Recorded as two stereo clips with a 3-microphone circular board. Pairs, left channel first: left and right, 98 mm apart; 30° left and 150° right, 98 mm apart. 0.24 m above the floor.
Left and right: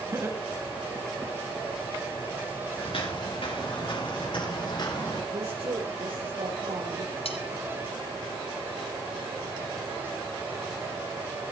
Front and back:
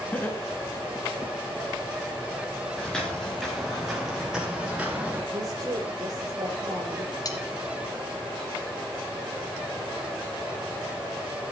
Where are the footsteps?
110° left, 5.5 m; by 5.2 s 135° left, 5.5 m.